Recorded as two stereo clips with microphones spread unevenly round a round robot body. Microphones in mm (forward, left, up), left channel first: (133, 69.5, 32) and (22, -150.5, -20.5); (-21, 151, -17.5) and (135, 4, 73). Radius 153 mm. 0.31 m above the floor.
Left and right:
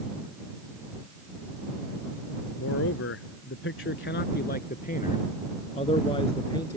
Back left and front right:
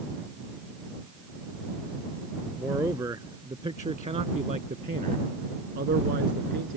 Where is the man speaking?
35° left; by 6.8 s 10° right.